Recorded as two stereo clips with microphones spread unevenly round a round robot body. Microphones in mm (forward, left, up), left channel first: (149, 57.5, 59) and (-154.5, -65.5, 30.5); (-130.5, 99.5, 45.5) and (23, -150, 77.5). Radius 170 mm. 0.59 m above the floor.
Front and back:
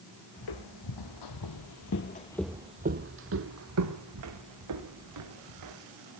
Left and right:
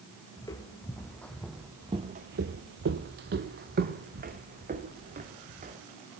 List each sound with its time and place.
0.4 s footsteps: 40° left, 1.9 m; by 5.8 s 120° right, 3.5 m